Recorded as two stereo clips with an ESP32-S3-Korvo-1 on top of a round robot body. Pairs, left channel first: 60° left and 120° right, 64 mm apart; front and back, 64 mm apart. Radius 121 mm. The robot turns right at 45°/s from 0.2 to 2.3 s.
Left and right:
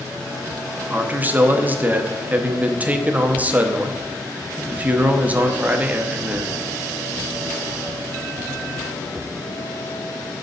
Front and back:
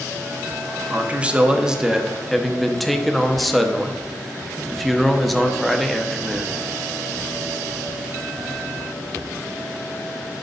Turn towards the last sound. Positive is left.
turn(degrees=-85)